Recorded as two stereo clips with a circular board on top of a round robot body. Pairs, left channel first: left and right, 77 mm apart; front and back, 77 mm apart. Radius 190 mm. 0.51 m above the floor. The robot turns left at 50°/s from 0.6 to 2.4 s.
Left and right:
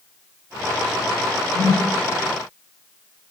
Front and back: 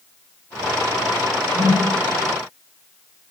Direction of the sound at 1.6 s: 45° left.